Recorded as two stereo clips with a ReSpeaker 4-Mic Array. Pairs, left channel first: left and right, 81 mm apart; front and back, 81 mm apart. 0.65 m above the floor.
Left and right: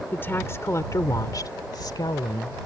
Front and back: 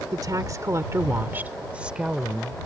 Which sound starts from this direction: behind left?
A woman speaking, at 0.1 s.